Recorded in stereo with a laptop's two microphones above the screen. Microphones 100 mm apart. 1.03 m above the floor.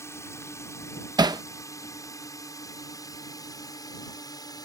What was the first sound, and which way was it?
A drone, 25° left (ahead or behind).